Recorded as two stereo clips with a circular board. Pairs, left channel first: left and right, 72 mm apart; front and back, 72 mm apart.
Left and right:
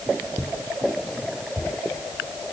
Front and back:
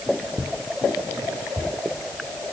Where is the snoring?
I don't hear snoring.